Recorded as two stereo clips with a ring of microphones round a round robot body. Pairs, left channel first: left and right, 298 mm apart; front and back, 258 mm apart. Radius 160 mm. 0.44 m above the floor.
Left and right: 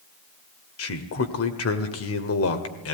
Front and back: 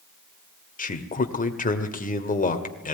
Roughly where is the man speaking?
Ahead left.